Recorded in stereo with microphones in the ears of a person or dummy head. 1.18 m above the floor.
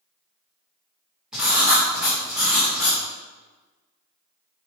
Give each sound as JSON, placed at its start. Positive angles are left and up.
{"t": 1.3, "sound": "writing", "side_deg": -5, "distance_m": 0.8}